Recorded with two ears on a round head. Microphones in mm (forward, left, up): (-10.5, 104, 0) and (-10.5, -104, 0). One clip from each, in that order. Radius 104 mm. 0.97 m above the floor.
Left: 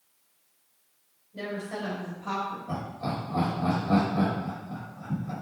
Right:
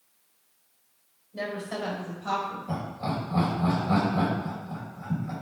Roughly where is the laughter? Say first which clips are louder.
Right 1 dB; centre.